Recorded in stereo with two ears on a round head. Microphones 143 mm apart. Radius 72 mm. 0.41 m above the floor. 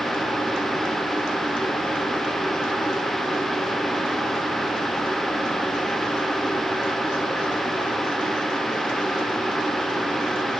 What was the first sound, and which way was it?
Only background noise.